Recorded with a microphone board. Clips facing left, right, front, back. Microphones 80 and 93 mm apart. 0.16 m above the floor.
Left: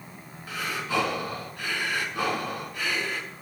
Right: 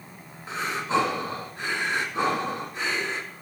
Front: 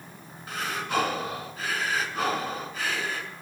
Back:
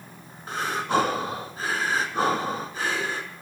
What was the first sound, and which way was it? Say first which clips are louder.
Breathing: right 4 dB, back 5 dB; 140° right.